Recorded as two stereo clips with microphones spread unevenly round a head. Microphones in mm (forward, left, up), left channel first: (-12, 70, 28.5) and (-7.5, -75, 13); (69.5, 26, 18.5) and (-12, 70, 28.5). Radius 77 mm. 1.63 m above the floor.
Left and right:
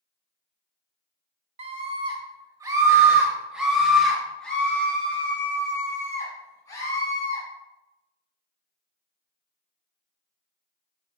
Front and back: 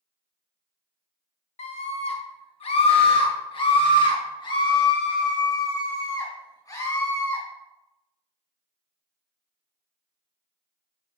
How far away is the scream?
About 2.5 m.